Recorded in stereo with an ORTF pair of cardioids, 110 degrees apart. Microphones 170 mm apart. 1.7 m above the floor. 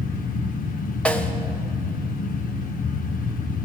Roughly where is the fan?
Ahead left.